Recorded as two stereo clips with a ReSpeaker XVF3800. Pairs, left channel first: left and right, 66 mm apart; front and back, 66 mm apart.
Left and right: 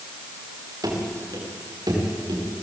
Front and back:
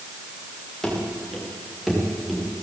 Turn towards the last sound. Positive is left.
turn(degrees=-90)